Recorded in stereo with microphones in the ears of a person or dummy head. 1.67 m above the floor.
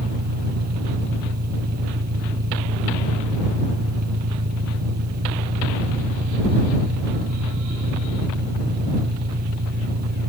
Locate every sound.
0.0 s an engine running: 50° right (ahead or behind)